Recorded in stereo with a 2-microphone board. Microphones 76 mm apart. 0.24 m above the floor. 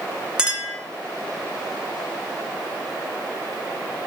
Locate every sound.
0.4 s a clink: 10° right (ahead or behind), 2.0 m